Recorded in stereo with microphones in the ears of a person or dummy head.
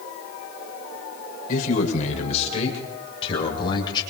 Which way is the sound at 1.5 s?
45° left (ahead or behind).